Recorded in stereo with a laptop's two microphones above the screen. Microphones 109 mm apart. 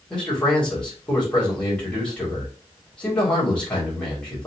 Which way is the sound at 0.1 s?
10° left (ahead or behind).